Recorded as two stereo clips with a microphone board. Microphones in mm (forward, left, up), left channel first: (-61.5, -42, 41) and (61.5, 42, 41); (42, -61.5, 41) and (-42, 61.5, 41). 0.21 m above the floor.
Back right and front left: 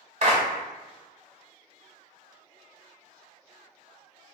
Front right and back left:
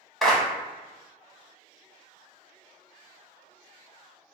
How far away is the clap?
About 1.2 m.